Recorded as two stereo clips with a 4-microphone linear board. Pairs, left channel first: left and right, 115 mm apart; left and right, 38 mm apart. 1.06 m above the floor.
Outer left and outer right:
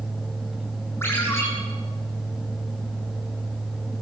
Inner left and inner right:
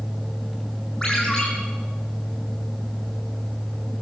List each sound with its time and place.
1.0 s a ringtone: 20° left (ahead or behind), 10 m